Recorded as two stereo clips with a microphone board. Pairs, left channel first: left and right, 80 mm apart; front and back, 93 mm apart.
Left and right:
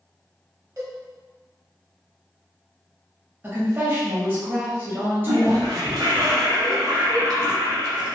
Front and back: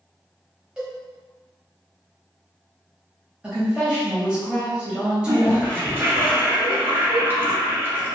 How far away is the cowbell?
About 1.0 m.